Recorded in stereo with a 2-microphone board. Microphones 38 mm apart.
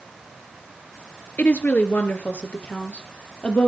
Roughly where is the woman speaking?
Left.